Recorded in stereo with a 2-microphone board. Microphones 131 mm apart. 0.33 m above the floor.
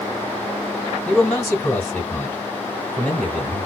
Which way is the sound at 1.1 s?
5° left (ahead or behind).